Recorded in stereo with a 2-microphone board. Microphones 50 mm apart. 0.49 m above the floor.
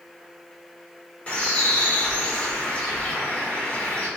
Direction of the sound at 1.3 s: 25° left (ahead or behind).